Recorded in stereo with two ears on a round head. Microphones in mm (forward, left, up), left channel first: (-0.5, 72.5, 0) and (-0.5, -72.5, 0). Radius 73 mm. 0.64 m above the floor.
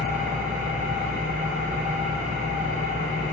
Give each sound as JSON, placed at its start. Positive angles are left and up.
{"t": 0.0, "sound": "an engine running", "side_deg": -55, "distance_m": 5.0}